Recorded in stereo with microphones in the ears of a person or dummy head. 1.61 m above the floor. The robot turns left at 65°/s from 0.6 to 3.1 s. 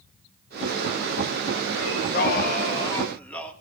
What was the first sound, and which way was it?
Singing, 100° left.